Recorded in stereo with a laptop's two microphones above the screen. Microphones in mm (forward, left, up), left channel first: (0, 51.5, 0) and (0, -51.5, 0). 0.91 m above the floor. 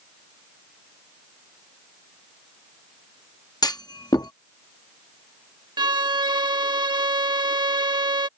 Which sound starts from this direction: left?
A clunk, at 3.6 s.